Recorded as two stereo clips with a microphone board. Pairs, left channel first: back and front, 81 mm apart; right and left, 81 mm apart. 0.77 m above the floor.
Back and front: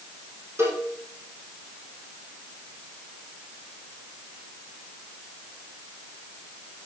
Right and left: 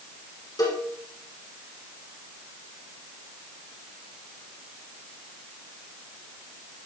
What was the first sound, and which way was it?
A cowbell, 55° right.